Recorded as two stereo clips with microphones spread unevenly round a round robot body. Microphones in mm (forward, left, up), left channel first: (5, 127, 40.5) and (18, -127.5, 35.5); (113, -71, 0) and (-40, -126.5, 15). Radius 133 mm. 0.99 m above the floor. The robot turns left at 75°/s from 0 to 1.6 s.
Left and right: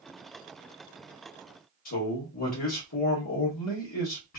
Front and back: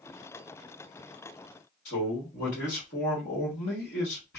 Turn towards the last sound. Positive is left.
turn(degrees=65)